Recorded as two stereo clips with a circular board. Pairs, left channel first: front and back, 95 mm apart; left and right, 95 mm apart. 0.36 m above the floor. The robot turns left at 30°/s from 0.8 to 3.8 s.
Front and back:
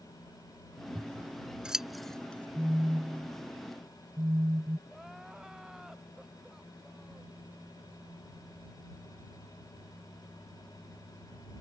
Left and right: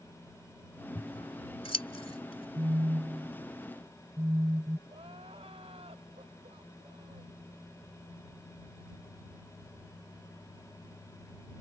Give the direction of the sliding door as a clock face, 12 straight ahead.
I don't hear a sliding door.